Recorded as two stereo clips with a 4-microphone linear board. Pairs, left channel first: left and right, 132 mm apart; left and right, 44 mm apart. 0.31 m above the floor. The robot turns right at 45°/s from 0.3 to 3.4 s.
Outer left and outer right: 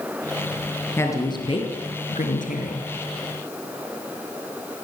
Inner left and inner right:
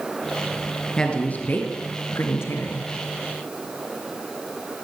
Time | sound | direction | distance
1.0 | a woman speaking | 15° left | 4 m